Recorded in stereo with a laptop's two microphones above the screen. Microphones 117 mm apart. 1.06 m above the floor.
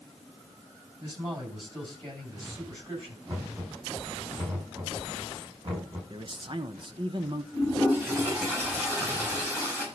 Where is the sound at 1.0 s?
35° right (ahead or behind), 9 m.